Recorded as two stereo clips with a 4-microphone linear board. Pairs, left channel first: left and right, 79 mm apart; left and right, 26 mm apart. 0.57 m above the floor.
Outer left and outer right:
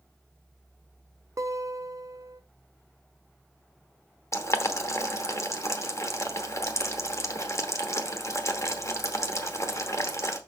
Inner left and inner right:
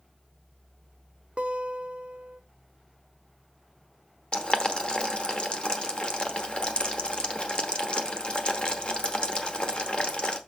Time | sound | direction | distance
1.4 | a guitar | 45° right (ahead or behind) | 0.6 m
4.3 | boiling | 40° left (ahead or behind) | 0.9 m